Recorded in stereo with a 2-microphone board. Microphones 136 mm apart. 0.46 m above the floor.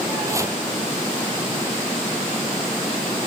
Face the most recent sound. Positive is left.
turn(degrees=-20)  # may be behind; listen again after turning